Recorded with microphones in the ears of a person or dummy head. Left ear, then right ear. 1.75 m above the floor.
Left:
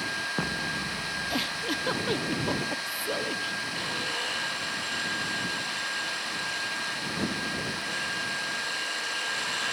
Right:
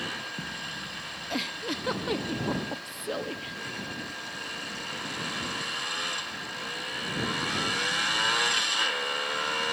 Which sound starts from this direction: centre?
A giggle, at 1.3 s.